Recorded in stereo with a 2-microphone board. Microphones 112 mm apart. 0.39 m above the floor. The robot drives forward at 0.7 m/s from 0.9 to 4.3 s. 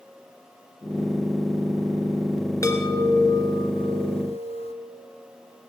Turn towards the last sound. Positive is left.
turn(degrees=65)  # may be behind; listen again after turning